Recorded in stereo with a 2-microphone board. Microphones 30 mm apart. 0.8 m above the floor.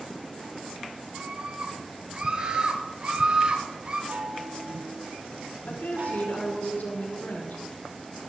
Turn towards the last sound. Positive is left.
turn(degrees=75)  # may be behind; listen again after turning